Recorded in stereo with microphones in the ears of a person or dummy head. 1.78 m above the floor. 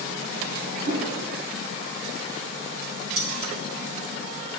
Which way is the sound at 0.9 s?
50° right (ahead or behind).